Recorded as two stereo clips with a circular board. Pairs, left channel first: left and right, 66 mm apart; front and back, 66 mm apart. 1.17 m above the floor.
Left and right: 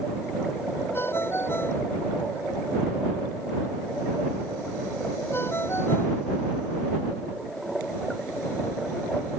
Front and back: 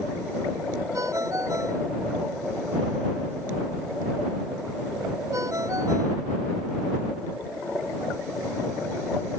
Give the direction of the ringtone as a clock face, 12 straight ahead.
7 o'clock.